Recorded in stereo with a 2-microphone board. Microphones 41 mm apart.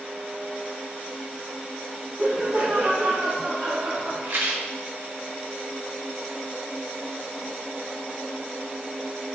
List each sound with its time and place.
2.2 s laughter: 75° right (ahead or behind), 2.5 m; by 4.1 s 55° right (ahead or behind), 1.9 m
4.2 s a rattle: 75° right (ahead or behind), 1.6 m